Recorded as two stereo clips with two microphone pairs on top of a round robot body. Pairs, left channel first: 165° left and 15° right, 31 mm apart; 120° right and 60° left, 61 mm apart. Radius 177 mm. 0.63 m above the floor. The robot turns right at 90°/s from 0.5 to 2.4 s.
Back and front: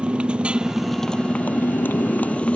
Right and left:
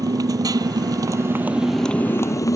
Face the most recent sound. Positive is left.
turn(degrees=-150)